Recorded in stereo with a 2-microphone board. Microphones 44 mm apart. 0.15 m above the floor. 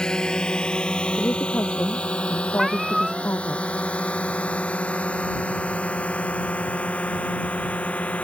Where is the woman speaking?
55° left (ahead or behind).